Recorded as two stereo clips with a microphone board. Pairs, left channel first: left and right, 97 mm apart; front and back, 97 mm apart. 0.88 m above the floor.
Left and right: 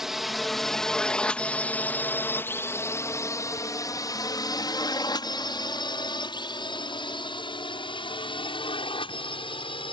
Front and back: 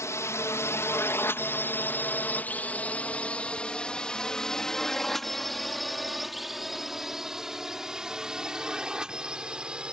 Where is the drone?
5° right; by 9.9 s 100° left.